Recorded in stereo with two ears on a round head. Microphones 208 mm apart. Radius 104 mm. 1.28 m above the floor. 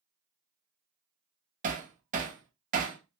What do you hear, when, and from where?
1.6 s hammering: 35° right (ahead or behind), 0.7 m